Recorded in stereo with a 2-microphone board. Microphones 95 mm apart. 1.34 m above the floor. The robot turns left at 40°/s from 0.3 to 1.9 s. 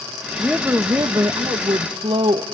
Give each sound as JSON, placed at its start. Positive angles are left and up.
{"t": 0.4, "sound": "a woman speaking", "azimuth_deg": -10, "distance_m": 1.2}